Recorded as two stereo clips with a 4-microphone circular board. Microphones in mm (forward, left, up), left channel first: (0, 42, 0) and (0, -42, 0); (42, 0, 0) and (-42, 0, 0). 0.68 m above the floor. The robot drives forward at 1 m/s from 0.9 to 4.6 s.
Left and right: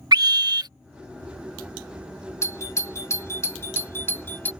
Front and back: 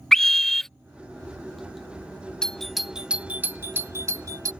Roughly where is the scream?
Right.